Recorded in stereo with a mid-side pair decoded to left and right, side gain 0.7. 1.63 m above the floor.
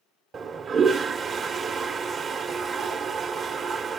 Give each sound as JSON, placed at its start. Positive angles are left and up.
{"t": 0.3, "sound": "a toilet flushing", "azimuth_deg": -30, "distance_m": 1.2}